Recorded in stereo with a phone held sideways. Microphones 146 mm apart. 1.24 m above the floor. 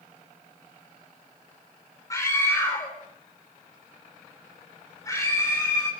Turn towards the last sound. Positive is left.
turn(degrees=25)  # may be behind; listen again after turning